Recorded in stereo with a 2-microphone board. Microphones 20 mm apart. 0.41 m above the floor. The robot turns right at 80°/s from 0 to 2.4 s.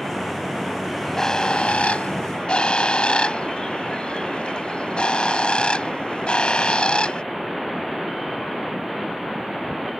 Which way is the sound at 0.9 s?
Straight ahead.